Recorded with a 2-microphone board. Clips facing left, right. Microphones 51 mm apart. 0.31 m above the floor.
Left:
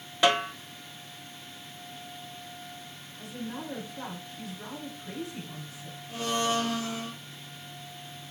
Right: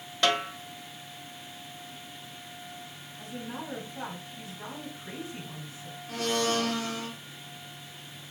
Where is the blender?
70° right (ahead or behind), 2 m.